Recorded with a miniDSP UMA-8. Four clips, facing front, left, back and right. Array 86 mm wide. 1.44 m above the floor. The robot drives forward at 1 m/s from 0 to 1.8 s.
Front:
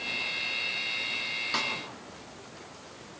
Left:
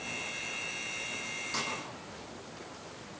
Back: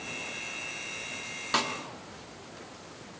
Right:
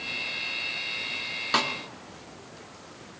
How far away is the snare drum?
About 1.7 m.